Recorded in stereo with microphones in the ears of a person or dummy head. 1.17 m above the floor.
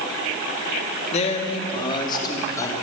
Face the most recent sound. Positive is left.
turn(degrees=15)  # may be behind; listen again after turning